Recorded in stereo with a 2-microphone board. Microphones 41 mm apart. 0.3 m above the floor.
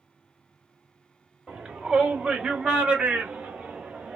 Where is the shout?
20° right (ahead or behind), 1.9 m; by 4.2 s 30° right (ahead or behind), 1.6 m.